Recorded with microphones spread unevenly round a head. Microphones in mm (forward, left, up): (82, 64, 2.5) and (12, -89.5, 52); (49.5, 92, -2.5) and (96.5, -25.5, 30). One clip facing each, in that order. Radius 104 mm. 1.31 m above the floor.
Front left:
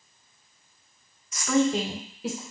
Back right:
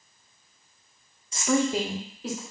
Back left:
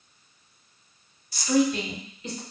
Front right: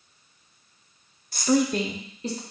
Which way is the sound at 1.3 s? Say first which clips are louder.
Front left 1 dB, front right 1 dB; 50° right.